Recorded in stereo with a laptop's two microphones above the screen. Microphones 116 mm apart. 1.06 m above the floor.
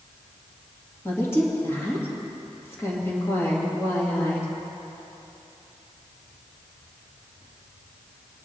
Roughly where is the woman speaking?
Left.